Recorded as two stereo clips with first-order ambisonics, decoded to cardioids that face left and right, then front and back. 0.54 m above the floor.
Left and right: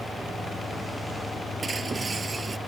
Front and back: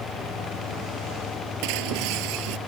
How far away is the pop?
I don't hear a pop.